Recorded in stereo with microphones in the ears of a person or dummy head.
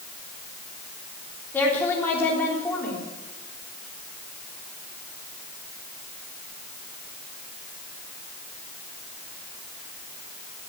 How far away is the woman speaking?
About 3.5 m.